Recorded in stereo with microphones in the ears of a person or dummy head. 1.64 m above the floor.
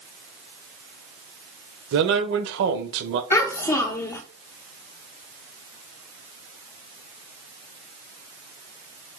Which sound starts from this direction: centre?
A child speaking, at 3.3 s.